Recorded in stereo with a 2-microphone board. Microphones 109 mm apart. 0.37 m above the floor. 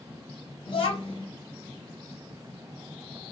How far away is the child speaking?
About 1.5 m.